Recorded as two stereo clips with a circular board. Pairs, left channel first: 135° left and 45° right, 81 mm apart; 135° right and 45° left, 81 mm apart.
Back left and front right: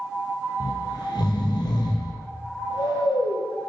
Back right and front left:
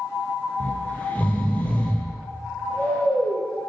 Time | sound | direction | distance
0.6 | snoring | 155° left | 1.9 m